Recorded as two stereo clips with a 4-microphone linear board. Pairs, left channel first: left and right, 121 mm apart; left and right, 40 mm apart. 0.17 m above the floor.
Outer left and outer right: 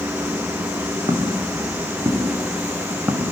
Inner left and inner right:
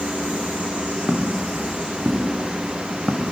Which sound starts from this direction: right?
Footsteps, at 1.1 s.